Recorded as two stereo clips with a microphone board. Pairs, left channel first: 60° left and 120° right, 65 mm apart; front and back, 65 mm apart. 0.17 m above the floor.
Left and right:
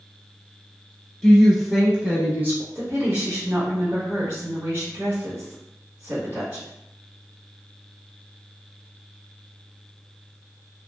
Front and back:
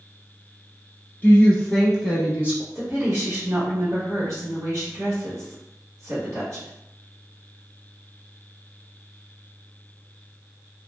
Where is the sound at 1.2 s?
10° right, 1.1 m; by 2.6 s 140° right, 1.2 m.